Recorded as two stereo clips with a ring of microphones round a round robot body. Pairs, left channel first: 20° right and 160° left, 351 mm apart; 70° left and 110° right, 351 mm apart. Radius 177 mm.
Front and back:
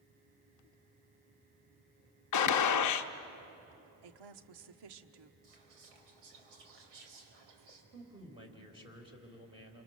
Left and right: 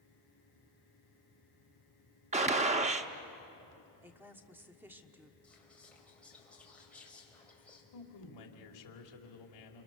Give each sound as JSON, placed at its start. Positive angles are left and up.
{"t": 2.3, "sound": "a gunshot", "azimuth_deg": -45, "distance_m": 0.9}
{"t": 4.0, "sound": "a woman speaking", "azimuth_deg": 165, "distance_m": 1.2}
{"t": 5.4, "sound": "whispering", "azimuth_deg": 155, "distance_m": 4.5}
{"t": 7.9, "sound": "a man speaking", "azimuth_deg": 80, "distance_m": 2.5}